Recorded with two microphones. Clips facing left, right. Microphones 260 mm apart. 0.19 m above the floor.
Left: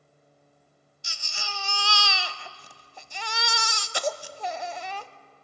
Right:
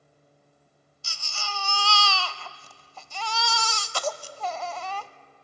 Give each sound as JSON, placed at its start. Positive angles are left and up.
{"t": 1.0, "sound": "a baby crying", "side_deg": 15, "distance_m": 0.6}